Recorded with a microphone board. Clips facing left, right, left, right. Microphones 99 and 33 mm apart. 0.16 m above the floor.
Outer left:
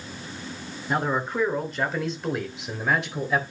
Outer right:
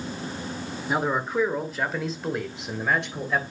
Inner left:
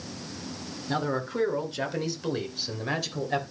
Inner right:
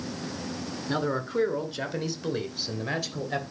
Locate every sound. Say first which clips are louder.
0.9 s a man speaking: even, inner right 1 dB; 5° right (ahead or behind), 2.5 m; by 3.4 s 5° left (ahead or behind), 3.5 m